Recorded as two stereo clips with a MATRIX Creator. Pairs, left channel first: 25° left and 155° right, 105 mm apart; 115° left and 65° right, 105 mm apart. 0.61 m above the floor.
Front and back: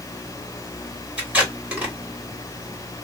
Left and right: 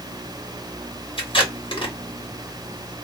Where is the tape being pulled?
125° left, 1.5 m.